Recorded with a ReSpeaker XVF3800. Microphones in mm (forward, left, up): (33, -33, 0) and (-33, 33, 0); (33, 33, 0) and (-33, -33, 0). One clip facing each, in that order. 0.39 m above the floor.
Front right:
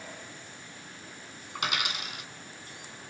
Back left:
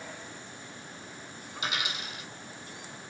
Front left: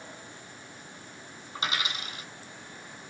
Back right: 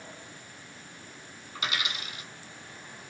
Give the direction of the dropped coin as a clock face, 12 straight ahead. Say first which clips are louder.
Front right 2 dB, front left 1 dB; 12 o'clock.